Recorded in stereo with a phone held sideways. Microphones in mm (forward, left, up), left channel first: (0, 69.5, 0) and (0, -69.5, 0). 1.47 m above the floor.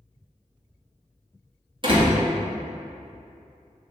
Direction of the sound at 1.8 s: 40° right (ahead or behind).